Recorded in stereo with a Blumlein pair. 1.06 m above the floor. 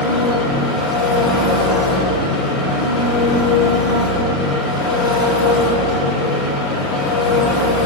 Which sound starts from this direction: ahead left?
An engine running, at 0.0 s.